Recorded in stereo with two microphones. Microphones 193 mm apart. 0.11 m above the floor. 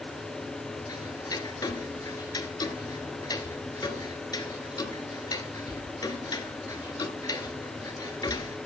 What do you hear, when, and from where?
0.9 s ticking: 20° left (ahead or behind), 0.6 m